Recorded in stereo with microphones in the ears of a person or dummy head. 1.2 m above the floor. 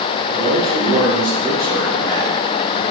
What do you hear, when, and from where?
0.3 s a man speaking: 20° right (ahead or behind), 2.5 m